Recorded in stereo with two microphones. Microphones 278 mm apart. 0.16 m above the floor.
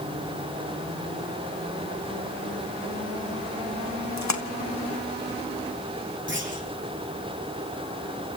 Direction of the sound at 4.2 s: 75° left (ahead or behind).